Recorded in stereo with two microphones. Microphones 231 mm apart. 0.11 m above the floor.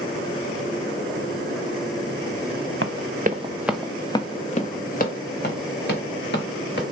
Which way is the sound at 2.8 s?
65° right (ahead or behind).